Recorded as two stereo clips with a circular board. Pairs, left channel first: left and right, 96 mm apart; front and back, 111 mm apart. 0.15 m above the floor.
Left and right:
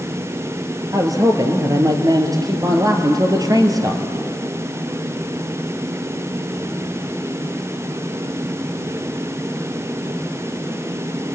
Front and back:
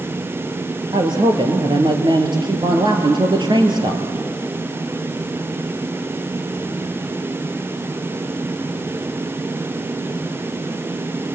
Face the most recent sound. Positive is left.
turn(degrees=-135)